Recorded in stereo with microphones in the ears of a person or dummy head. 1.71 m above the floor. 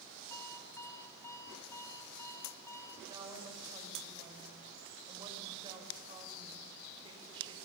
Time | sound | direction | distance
0.3 | an alarm clock | 15° left (ahead or behind) | 2.5 m
3.1 | a woman speaking | 25° right (ahead or behind) | 7 m